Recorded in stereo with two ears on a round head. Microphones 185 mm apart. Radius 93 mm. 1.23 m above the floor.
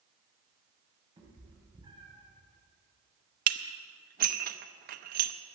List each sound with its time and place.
1.2 s a cat meowing: 25° right (ahead or behind), 3 m
3.5 s dishes clattering: 45° right (ahead or behind), 0.7 m